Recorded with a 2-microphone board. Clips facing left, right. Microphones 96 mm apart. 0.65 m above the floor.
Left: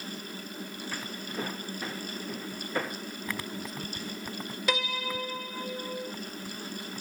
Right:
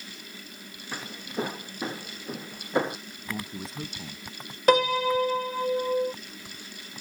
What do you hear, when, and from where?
0.9 s footsteps: 20° right (ahead or behind); by 3.0 s 25° right (ahead or behind)
3.3 s a man speaking: 30° right (ahead or behind)
4.7 s a piano: 45° right (ahead or behind)